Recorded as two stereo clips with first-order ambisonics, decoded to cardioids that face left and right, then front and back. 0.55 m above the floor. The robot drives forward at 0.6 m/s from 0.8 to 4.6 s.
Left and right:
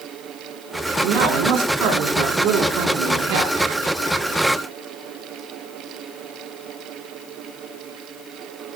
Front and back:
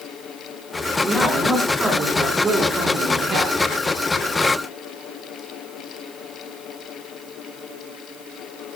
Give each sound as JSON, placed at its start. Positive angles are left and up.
{"t": 1.0, "sound": "a man speaking", "azimuth_deg": -100, "distance_m": 4.0}